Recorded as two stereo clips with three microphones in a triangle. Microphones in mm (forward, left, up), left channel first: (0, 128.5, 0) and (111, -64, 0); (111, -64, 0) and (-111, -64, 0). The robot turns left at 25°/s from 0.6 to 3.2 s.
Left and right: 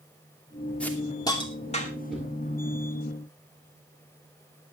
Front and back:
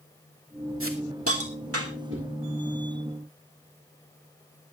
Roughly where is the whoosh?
Behind right.